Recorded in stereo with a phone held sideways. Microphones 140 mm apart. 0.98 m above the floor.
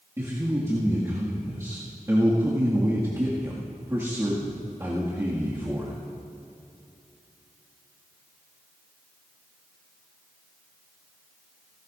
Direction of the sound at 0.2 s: 25° right (ahead or behind).